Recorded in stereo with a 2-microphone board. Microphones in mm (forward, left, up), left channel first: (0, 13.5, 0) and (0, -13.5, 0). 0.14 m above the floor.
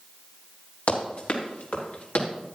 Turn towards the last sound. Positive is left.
turn(degrees=70)  # may be behind; listen again after turning